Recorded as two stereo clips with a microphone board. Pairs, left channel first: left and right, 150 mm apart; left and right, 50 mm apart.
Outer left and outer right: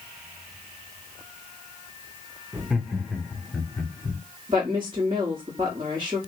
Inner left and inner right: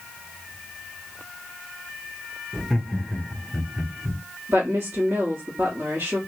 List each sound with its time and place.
2.5 s laughter: 5° right (ahead or behind), 0.7 m; by 4.2 s 10° left (ahead or behind), 1.3 m
4.5 s a woman speaking: 30° right (ahead or behind), 1.1 m